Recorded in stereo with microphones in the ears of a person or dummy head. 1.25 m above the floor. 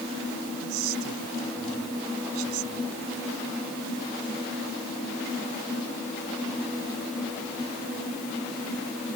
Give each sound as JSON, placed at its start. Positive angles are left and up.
{"t": 0.6, "sound": "a man speaking", "side_deg": -90}